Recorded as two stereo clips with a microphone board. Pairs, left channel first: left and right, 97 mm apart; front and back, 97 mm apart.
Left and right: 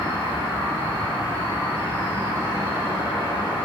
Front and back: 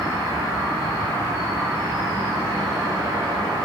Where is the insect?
145° right, 0.9 m.